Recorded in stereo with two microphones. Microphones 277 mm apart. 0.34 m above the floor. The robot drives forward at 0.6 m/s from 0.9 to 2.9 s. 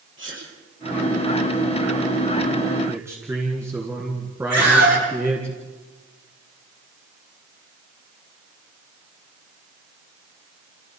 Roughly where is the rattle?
No rattle in this recording.